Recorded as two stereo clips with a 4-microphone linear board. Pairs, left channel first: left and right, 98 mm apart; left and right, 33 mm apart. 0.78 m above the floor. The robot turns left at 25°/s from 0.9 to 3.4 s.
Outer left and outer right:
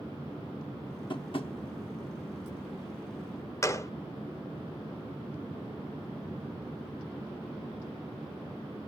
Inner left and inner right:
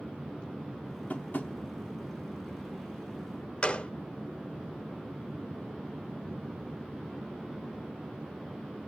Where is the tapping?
50° left (ahead or behind), 1.1 m; by 1.5 s 60° left (ahead or behind), 1.1 m.